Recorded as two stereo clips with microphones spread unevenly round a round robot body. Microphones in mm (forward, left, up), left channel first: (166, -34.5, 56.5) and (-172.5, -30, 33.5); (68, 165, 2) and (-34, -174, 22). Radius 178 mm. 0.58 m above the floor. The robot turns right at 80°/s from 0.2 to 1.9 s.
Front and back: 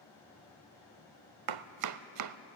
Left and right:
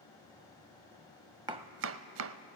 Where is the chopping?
Straight behind, 0.5 m; by 2.4 s 150° right, 0.5 m.